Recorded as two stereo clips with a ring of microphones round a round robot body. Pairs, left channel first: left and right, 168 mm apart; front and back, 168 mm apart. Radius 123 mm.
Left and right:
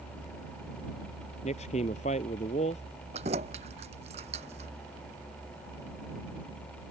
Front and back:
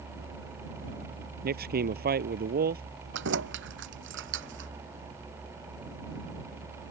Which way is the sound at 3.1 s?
155° right.